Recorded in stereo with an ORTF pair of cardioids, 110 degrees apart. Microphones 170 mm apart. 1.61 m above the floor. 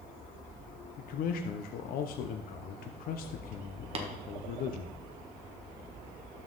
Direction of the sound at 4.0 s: 35° right.